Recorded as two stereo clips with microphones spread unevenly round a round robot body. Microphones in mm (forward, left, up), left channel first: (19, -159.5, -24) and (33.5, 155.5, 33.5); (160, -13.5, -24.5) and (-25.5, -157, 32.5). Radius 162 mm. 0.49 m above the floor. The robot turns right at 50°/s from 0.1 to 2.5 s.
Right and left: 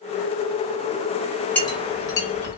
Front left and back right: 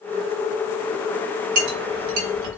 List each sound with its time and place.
1.6 s a clink: 175° right, 1.0 m; by 2.6 s 125° right, 1.0 m